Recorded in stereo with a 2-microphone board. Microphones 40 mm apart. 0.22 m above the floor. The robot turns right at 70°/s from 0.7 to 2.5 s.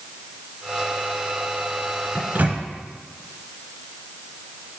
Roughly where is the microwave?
Right.